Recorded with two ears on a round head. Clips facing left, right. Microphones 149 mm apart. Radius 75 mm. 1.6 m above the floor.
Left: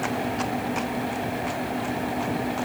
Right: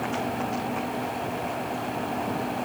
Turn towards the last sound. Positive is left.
No sound to turn to.